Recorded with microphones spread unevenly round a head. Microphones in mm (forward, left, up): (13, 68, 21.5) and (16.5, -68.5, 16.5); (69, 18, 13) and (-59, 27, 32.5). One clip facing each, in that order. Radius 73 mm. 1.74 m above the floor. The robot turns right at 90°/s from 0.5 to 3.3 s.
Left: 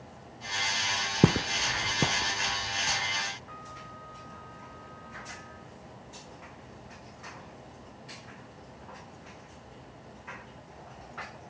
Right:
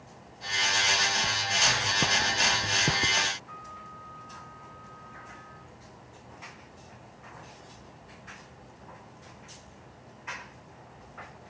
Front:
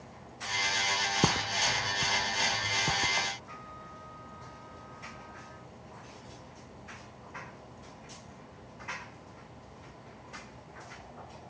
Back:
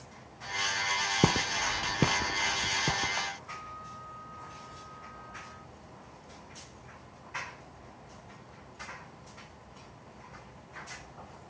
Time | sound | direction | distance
1.2 | footsteps | 100° left | ?
3.5 | a trumpet | 45° left | ?